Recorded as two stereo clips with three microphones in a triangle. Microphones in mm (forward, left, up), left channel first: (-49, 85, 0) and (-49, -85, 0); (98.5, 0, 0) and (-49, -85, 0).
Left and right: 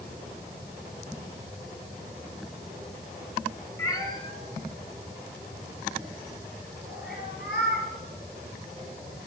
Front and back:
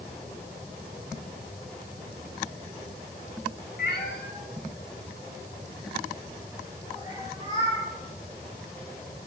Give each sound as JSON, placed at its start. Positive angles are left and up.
{"t": 3.8, "sound": "a cat meowing", "azimuth_deg": 20, "distance_m": 1.5}